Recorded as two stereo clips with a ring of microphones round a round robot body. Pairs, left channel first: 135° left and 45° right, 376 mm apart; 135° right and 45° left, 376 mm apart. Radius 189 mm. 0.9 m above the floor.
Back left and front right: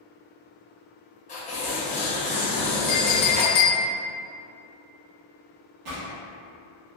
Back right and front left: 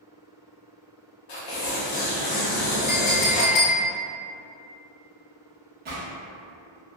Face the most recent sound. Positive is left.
turn(degrees=-15)